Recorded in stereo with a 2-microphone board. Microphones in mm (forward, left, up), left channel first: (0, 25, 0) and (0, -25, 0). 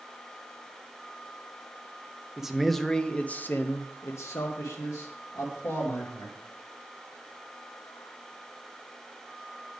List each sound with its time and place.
2.4 s a man speaking: 10° right (ahead or behind), 0.8 m; by 6.4 s 85° left, 1.9 m